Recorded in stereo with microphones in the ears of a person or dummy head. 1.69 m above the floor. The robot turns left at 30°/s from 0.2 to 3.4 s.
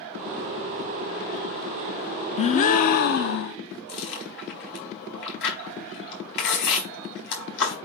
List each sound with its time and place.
2.4 s a gasp: 140° left, 0.7 m; by 3.6 s 110° left, 0.7 m
3.9 s chewing: 70° left (ahead or behind), 4.5 m